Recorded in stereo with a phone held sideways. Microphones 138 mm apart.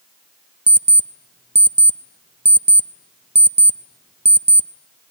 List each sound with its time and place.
0.7 s an alarm clock: 50° right (ahead or behind), 0.5 m